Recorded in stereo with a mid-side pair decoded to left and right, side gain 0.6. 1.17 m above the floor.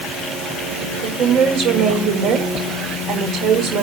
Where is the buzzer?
I don't hear a buzzer.